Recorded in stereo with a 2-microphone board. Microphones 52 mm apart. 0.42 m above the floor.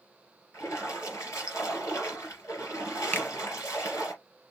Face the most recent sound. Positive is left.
turn(degrees=35)  # may be behind; listen again after turning